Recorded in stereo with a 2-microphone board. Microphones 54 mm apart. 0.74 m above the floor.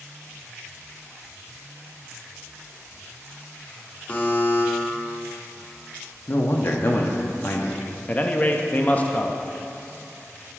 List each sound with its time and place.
4.1 s a buzzer: 30° left (ahead or behind), 1.2 m
6.3 s a man speaking: 40° left (ahead or behind), 0.7 m
8.1 s a man speaking: 30° left (ahead or behind), 0.5 m